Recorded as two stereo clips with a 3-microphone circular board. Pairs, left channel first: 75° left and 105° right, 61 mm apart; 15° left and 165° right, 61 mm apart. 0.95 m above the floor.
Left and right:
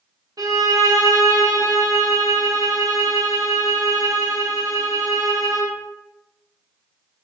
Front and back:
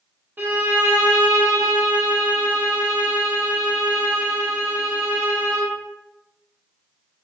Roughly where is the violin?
Right.